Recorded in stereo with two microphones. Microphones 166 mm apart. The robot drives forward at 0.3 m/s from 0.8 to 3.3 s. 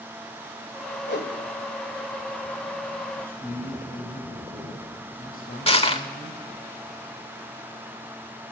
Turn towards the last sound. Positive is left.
turn(degrees=35)  # may be behind; listen again after turning